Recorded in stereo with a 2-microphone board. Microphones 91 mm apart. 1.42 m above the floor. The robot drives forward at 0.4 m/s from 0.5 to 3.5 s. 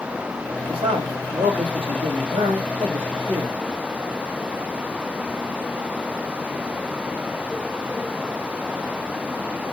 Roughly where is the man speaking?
Right.